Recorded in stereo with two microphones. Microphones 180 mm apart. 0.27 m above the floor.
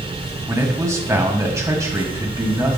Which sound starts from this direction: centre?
A man speaking, at 0.5 s.